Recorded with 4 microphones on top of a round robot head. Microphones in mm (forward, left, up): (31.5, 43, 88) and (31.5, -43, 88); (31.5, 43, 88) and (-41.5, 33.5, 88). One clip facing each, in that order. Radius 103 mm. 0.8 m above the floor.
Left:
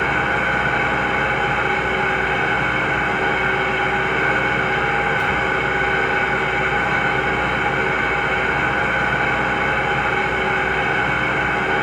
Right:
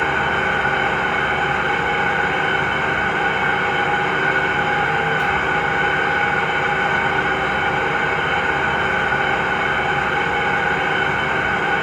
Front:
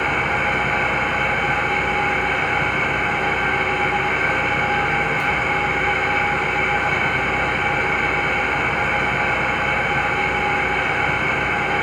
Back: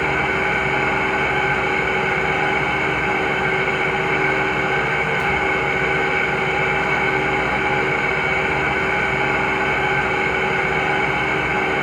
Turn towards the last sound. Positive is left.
turn(degrees=175)